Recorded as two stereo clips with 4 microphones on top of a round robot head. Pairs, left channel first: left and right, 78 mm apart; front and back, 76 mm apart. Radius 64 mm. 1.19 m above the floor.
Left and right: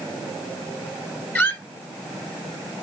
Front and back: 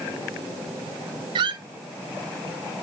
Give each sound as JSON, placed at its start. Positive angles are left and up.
{"t": 1.4, "sound": "a squeak", "azimuth_deg": 155, "distance_m": 0.9}